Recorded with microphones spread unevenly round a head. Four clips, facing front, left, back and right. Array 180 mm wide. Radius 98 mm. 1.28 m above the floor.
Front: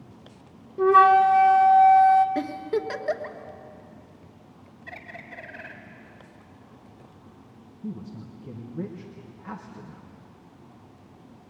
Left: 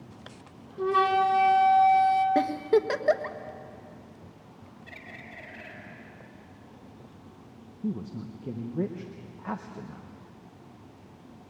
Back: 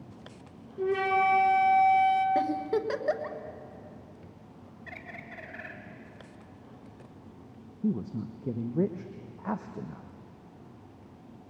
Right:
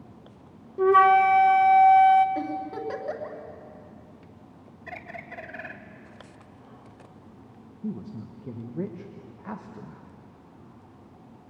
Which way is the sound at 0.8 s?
50° right.